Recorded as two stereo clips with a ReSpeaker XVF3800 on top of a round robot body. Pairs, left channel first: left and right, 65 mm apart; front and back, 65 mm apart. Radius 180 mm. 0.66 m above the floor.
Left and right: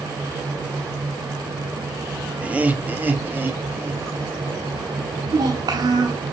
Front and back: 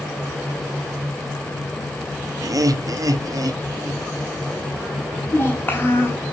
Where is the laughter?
160° right, 1.3 m; by 4.4 s 145° right, 2.5 m.